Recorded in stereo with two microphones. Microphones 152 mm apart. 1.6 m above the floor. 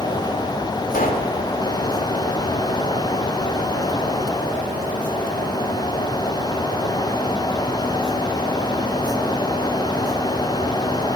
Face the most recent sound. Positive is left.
turn(degrees=70)  # may be behind; listen again after turning